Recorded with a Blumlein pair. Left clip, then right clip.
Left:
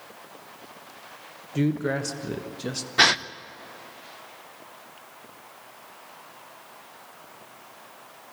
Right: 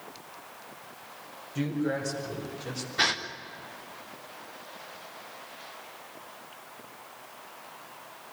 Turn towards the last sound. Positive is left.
turn(degrees=25)